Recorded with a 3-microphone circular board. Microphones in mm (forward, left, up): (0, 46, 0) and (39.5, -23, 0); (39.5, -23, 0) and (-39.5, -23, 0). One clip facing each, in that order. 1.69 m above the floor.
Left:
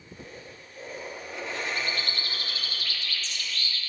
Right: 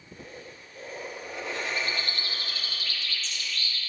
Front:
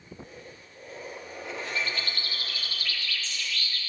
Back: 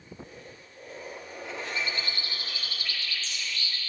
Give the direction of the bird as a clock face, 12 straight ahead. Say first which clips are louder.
Even, front 1 dB; 8 o'clock.